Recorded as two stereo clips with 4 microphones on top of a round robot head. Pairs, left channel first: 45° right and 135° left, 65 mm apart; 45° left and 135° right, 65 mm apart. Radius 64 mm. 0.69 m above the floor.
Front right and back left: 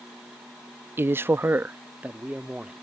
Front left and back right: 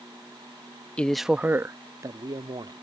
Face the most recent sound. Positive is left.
turn(degrees=-150)